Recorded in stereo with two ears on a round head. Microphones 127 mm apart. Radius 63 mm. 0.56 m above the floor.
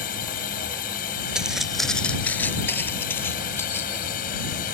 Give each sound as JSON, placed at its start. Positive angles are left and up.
{"t": 0.0, "sound": "a drone", "side_deg": 65}
{"t": 1.4, "sound": "footsteps", "side_deg": -5}